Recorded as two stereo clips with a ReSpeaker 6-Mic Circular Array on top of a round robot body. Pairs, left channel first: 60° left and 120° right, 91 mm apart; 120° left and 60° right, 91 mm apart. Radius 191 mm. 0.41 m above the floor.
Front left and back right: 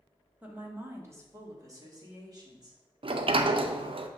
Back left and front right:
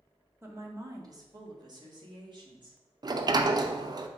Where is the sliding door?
105° right, 0.5 m.